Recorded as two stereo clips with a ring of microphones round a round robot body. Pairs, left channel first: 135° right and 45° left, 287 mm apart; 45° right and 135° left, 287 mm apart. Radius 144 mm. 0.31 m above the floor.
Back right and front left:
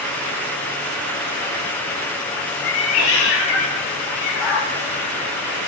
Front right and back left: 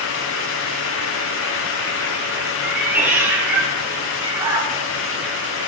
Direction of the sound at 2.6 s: 140° right.